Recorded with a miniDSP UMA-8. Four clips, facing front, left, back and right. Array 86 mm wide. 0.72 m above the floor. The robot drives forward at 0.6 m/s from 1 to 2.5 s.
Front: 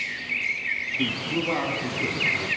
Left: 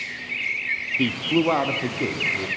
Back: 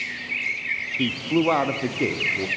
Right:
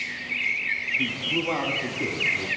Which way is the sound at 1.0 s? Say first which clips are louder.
Left 10 dB, back 7 dB; 110° left.